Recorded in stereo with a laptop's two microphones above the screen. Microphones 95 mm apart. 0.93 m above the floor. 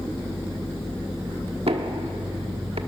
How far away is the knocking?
About 1.3 m.